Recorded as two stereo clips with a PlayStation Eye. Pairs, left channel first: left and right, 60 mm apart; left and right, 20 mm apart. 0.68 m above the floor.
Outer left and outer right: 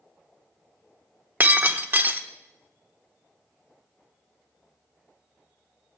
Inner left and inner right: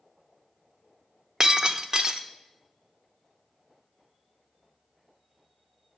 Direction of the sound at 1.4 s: 35° right (ahead or behind).